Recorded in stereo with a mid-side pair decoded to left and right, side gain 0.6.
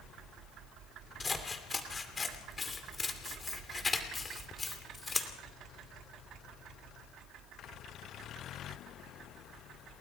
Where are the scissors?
25° left, 2.5 m.